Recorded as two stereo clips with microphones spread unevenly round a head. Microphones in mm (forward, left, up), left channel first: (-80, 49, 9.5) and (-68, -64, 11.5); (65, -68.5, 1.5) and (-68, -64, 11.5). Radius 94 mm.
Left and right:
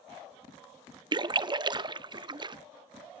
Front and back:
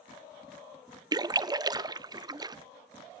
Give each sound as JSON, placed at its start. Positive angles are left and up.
{"t": 1.1, "sound": "a splash", "azimuth_deg": -125, "distance_m": 0.7}